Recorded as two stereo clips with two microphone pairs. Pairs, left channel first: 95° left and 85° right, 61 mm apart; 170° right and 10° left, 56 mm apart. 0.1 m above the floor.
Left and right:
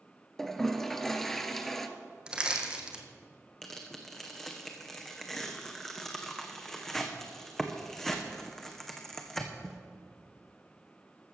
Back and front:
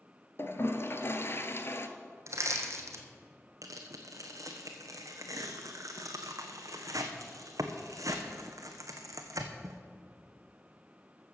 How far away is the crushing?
About 1.5 m.